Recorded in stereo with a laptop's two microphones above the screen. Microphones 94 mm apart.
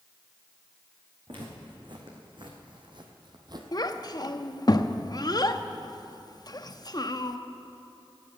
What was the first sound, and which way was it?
Footsteps, 55° right (ahead or behind).